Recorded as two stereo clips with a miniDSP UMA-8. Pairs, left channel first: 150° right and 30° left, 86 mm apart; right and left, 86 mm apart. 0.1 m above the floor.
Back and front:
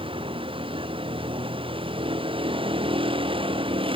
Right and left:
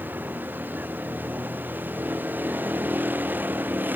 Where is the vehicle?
20° left.